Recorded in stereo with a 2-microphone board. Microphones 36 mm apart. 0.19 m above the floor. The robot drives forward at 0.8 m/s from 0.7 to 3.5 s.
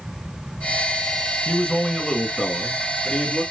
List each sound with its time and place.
1.4 s a man speaking: 35° left (ahead or behind), 1.6 m; by 3.4 s 20° left (ahead or behind), 2.5 m